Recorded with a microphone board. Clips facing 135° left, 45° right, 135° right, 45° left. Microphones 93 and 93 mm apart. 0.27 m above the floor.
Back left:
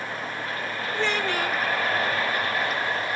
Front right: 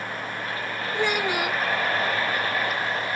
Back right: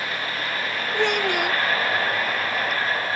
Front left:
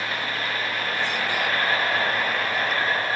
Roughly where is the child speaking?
Behind right.